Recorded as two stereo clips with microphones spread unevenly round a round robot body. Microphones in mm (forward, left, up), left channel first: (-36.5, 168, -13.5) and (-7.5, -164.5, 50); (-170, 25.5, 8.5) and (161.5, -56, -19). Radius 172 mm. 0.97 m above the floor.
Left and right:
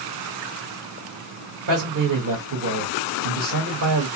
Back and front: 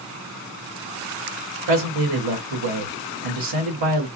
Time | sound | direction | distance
1.7 | a man speaking | 30° right | 1.0 m